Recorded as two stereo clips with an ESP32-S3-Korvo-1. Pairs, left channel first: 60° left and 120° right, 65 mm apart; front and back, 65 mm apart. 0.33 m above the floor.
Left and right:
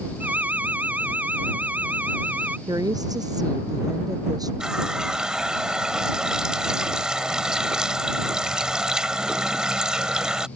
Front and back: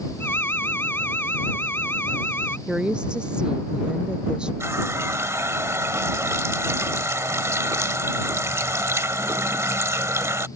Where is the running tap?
165° left.